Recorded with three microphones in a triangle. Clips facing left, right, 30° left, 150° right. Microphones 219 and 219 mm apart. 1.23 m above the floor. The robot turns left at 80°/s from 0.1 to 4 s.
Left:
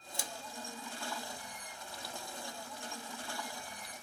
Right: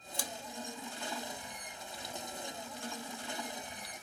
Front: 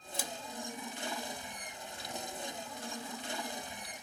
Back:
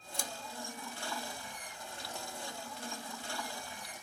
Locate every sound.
0.1 s scissors: 110° left, 0.8 m; by 0.3 s 100° left, 0.8 m